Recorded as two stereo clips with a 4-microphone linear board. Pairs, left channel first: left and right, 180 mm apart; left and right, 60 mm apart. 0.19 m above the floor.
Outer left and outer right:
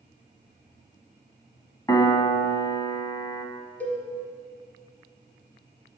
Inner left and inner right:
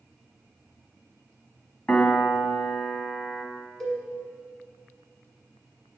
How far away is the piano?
About 0.8 m.